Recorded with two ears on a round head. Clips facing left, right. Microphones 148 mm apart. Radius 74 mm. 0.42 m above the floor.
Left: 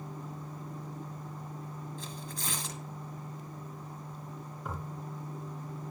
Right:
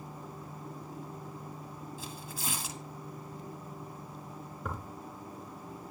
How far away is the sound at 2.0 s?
About 1.3 m.